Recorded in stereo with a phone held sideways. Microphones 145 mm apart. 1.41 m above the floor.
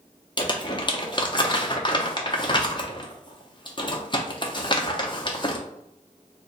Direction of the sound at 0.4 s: 35° left (ahead or behind).